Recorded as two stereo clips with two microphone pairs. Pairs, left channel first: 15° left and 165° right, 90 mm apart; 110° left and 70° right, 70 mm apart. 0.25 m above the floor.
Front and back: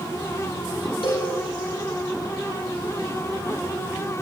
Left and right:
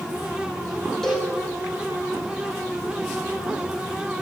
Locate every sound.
1.0 s a cowbell: 25° left, 3.5 m